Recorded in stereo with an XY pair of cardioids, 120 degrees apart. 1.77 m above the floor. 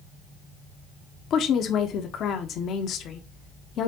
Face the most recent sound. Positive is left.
turn(degrees=60)